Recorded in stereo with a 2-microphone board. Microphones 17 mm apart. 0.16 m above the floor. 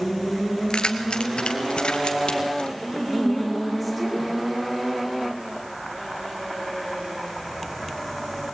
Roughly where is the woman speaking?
Centre.